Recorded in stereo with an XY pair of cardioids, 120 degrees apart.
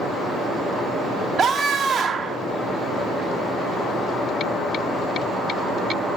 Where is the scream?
30° right, 1.1 m.